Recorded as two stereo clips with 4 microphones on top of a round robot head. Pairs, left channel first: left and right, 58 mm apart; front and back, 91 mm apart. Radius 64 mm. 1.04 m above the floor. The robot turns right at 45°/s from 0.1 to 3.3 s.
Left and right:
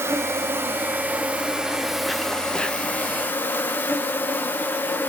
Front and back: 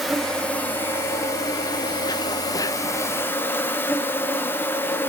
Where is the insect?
90° right, 1.4 m; by 5.1 s 55° left, 1.4 m.